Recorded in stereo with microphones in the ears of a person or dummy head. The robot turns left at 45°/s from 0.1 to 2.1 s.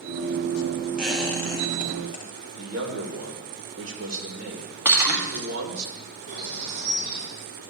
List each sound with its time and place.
1.0 s a squeak: 175° right, 1.0 m; by 2.3 s 135° left, 1.0 m
2.6 s a man speaking: 80° right, 1.9 m
4.8 s breaking glass: 15° right (ahead or behind), 1.7 m
6.3 s a bird: 80° right, 4 m